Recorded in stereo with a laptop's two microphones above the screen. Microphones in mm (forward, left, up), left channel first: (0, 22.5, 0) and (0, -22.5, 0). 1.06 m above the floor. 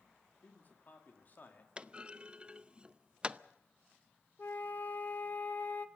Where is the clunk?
25° right (ahead or behind), 0.6 m.